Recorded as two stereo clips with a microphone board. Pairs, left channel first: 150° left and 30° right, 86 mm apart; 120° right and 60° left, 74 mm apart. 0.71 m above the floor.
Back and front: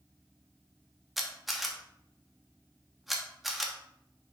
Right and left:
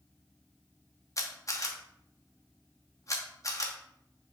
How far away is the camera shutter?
About 1.0 m.